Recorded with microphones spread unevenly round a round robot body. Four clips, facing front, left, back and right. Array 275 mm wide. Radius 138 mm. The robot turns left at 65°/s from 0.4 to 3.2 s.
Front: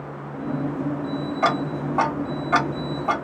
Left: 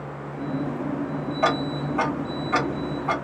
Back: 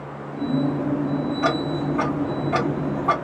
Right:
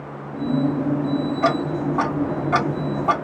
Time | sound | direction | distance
1.4 | ticking | 30° left | 1.5 m